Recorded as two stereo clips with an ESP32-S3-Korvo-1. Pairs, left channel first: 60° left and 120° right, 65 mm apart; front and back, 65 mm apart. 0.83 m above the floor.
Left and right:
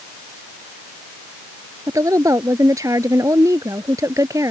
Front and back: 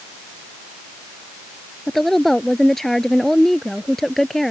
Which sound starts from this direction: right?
A woman speaking, at 1.9 s.